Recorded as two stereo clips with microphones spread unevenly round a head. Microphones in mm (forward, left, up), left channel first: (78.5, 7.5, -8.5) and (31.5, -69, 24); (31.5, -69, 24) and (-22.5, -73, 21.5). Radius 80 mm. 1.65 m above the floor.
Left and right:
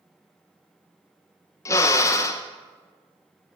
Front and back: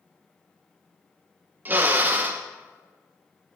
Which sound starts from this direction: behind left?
A drill, at 1.6 s.